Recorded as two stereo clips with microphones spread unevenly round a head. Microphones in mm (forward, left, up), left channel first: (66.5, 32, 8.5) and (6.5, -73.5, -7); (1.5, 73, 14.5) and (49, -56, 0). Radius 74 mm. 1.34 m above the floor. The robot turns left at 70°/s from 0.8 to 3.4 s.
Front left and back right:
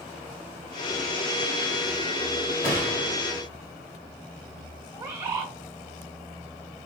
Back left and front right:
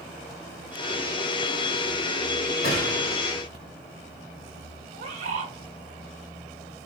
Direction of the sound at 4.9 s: 55° right.